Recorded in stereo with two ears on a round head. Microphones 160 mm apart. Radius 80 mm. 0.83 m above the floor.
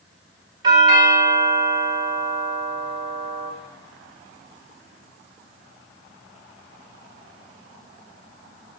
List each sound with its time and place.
0.6 s a doorbell: 25° right (ahead or behind), 3.5 m